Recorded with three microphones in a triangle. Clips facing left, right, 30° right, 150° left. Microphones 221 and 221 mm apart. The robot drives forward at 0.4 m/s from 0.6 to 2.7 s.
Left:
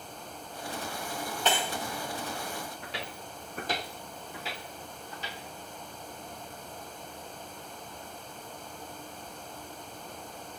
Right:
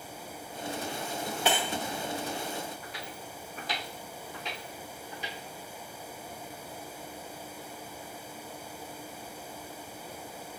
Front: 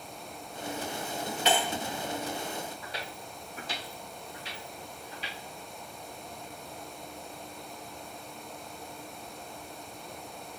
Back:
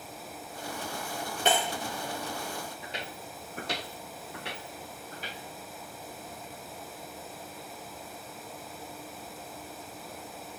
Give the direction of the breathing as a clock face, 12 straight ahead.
No breathing in this recording.